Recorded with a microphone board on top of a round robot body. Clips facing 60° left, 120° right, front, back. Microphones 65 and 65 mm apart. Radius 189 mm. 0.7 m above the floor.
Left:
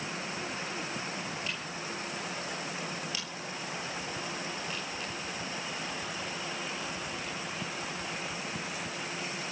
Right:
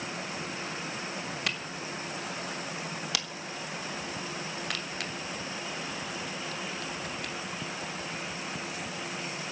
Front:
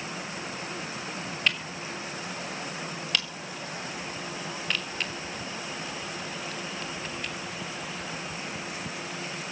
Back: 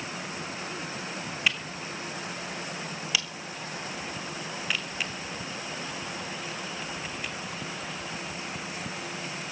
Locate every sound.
1.5 s a camera shutter: 95° right, 3 m